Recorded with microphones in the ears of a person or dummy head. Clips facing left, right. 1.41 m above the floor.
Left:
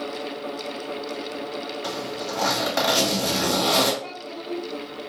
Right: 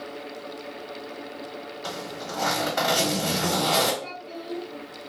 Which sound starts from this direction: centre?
A child speaking, at 4.0 s.